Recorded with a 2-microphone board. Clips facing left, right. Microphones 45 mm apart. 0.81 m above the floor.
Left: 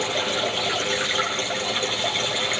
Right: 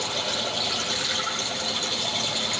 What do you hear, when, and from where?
0.0 s running water: 40° left (ahead or behind), 5.5 m